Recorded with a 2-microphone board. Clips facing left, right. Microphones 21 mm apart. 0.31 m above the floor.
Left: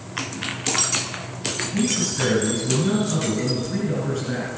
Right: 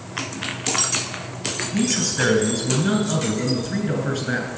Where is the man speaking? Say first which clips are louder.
Right 2 dB; 40° right (ahead or behind), 3 m.